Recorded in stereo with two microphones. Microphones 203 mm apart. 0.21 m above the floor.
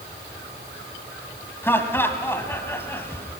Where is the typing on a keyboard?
No typing on a keyboard in this recording.